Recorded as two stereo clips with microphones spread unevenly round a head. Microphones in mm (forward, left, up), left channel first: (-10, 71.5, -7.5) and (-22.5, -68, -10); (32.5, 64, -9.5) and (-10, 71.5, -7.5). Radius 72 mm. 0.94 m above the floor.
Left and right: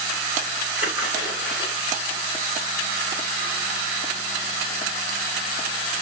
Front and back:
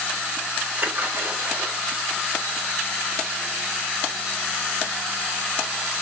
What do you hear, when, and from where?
0.8 s a splash: 120° left, 3 m